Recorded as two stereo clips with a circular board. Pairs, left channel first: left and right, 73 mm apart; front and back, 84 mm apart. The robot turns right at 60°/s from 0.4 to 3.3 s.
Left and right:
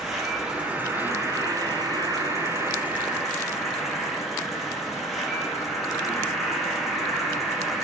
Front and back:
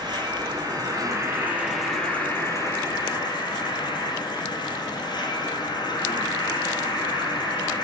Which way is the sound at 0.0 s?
175° right.